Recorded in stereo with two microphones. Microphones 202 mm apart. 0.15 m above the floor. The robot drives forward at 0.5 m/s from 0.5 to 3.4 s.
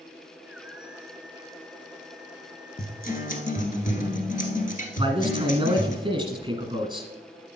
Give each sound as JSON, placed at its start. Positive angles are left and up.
{"t": 2.8, "sound": "a guitar", "side_deg": 50, "distance_m": 1.3}
{"t": 5.0, "sound": "a man speaking", "side_deg": -20, "distance_m": 1.4}